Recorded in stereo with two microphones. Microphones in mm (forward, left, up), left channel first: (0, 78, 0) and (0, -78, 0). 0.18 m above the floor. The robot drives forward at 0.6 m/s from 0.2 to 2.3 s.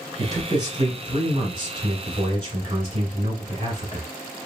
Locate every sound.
0.2 s a man speaking: 25° right (ahead or behind), 2 m; by 4.0 s 35° right (ahead or behind), 1.7 m